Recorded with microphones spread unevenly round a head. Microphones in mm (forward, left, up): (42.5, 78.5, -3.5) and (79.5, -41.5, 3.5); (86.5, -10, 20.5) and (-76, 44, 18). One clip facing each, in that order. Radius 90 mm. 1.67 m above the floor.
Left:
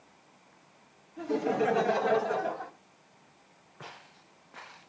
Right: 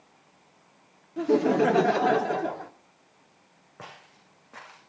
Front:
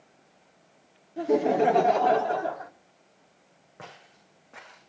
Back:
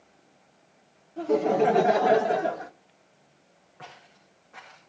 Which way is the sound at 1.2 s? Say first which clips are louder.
Right 7 dB, even; 95° right.